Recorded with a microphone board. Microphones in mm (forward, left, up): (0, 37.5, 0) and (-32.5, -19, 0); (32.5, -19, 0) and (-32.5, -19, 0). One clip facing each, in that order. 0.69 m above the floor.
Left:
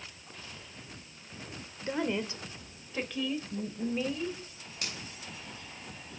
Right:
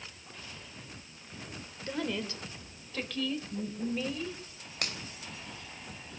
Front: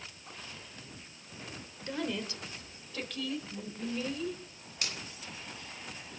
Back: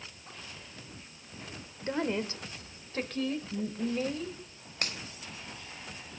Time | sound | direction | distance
1.8 | a woman speaking | 125° left | 2.5 m
4.8 | a finger snap | 140° right | 3.5 m